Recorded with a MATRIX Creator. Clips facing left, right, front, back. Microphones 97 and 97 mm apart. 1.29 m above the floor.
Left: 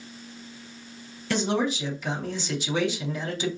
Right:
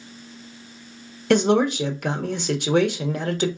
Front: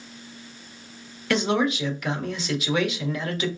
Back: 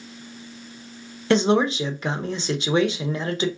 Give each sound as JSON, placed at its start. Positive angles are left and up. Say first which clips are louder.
{"t": 1.3, "sound": "a man speaking", "louder": "right 8 dB, back 4 dB", "azimuth_deg": -120, "distance_m": 1.0}